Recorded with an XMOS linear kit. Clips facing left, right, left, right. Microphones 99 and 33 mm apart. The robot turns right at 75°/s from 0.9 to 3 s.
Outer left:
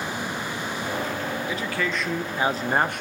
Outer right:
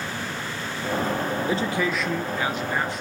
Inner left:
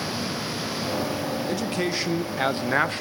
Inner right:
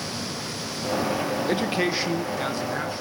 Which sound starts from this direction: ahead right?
A man speaking, at 1.5 s.